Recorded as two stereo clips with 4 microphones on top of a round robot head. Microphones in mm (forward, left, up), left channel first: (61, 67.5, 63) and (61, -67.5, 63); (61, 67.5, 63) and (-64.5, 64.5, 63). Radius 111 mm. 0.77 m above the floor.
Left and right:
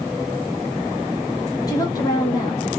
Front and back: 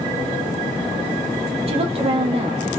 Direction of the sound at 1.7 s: 155° left.